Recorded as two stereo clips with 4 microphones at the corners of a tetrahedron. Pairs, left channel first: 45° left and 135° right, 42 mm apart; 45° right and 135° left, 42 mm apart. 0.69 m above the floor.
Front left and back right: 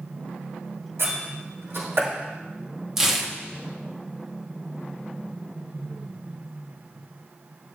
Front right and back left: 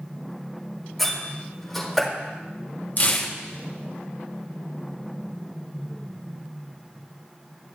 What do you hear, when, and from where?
1.0 s a door slam: 135° right, 4.5 m
3.0 s tearing paper: 60° right, 1.0 m